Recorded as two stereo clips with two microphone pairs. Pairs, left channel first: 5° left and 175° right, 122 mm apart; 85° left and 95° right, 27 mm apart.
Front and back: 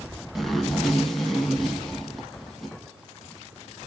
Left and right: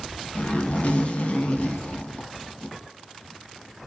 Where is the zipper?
95° left, 0.9 m.